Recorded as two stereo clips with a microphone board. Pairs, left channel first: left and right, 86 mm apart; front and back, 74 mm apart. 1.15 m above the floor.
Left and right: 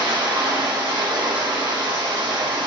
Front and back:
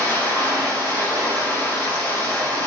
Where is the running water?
65° right, 6 m.